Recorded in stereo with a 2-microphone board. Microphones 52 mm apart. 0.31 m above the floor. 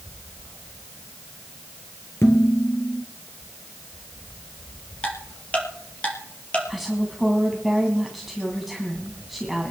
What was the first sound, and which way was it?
Dishes clattering, 50° left (ahead or behind).